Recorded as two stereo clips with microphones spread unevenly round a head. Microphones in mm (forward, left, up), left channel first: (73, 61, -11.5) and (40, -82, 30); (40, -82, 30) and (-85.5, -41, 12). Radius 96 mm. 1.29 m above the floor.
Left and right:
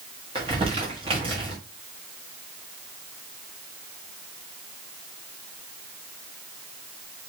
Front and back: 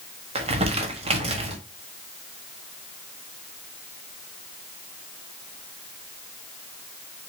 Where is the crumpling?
155° right, 1.2 m.